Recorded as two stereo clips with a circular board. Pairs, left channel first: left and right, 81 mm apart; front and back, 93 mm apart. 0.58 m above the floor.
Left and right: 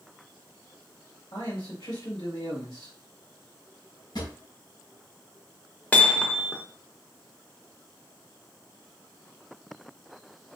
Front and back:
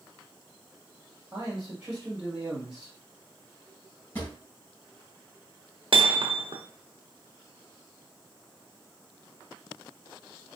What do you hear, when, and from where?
1.3 s a man speaking: 105° left, 1.9 m
4.2 s a drawer: 65° left, 1.6 m
5.9 s hammering: 160° left, 0.6 m